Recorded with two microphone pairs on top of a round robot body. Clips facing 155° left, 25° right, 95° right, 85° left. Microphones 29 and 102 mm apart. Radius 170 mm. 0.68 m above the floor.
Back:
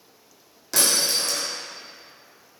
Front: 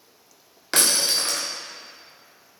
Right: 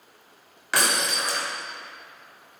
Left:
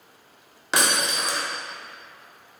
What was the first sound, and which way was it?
Breaking glass, 15° left.